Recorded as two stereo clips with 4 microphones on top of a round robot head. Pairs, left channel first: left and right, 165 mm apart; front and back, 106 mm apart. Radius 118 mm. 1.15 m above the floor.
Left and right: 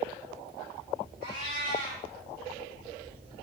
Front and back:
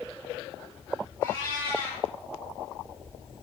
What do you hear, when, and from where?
1.2 s a cat meowing: 70° left, 7 m